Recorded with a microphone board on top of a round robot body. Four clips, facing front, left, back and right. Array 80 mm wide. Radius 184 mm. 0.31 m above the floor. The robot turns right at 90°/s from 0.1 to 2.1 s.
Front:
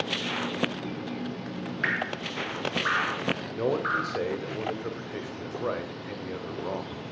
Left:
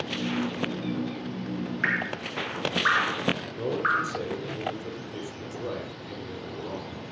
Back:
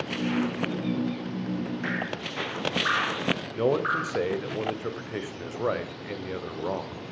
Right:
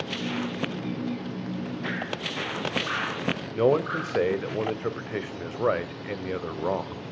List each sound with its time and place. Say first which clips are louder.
1.8 s dripping: left 2 dB, front 1 dB; 65° left, 4.5 m; by 4.1 s 90° left, 4.5 m
3.5 s a man speaking: right 6 dB, back 2 dB; 100° right, 2 m